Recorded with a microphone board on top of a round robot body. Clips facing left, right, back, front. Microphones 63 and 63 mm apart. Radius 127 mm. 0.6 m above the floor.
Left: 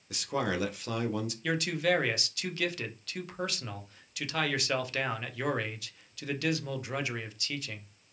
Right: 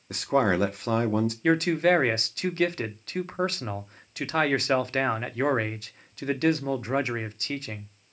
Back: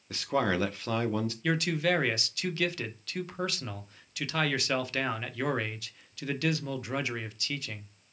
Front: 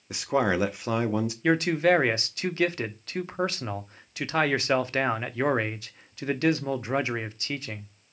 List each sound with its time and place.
0.1 s a man speaking: 65° right, 0.7 m
1.4 s a man speaking: 50° right, 0.8 m